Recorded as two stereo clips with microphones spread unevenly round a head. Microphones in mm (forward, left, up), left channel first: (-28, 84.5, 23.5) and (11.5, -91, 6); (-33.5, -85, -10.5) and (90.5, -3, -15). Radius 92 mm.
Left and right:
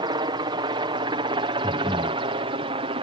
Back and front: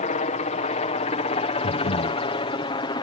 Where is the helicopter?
135° right; by 3.0 s 110° right.